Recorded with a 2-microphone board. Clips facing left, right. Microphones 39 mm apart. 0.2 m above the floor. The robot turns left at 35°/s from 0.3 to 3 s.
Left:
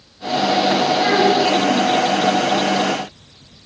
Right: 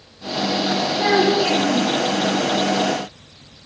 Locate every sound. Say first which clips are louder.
1.0 s a child speaking: right 1 dB; 10° left, 1.9 m; by 1.9 s 20° right, 1.9 m